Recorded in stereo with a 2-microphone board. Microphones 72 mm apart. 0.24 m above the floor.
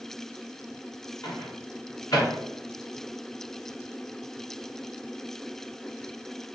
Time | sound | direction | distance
1.2 | a microwave | 50° left (ahead or behind) | 1.6 m